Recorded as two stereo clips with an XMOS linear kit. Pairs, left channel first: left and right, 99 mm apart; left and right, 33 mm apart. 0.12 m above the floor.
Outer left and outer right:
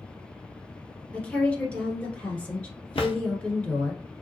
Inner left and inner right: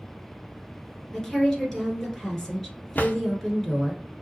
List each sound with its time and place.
1.1 s a woman speaking: 10° left (ahead or behind), 1.5 m
3.0 s a drawer: 75° left (ahead or behind), 0.6 m